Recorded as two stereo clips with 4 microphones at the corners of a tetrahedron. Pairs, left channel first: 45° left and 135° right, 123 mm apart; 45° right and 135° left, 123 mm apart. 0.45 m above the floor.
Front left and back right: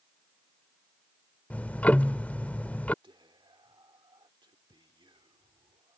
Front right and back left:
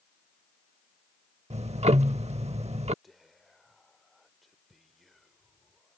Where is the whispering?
135° right.